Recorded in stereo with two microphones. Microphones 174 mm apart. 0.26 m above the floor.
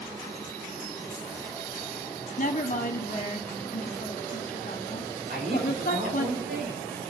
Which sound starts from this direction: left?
A woman speaking, at 2.4 s.